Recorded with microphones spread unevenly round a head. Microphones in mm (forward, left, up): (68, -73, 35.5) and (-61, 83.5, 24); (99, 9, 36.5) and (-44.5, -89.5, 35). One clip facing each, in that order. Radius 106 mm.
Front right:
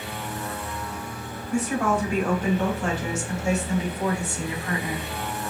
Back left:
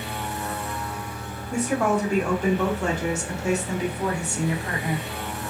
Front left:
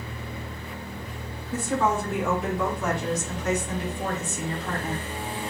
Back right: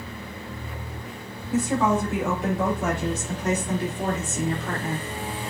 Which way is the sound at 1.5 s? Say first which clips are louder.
Back left 1 dB, back right 3 dB; 135° left.